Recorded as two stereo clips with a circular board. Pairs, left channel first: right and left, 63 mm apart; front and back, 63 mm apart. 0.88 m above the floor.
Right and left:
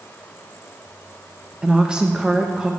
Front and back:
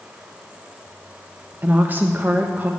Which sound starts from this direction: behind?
A woman speaking, at 1.6 s.